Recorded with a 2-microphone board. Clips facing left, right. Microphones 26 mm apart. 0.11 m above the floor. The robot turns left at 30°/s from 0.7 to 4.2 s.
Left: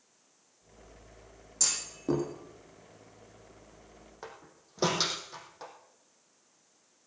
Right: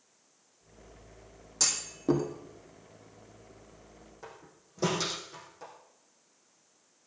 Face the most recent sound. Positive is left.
turn(degrees=45)  # may be behind; listen again after turning